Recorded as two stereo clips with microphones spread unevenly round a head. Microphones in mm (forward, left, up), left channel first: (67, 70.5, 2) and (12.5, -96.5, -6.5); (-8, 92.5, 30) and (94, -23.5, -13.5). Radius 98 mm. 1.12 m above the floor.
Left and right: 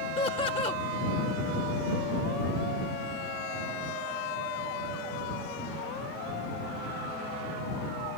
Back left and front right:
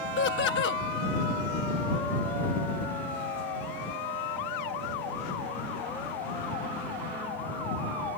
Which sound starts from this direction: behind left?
Laughter, at 0.2 s.